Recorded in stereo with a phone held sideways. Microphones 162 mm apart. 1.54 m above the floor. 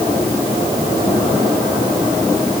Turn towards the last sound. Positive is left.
No sound to turn to.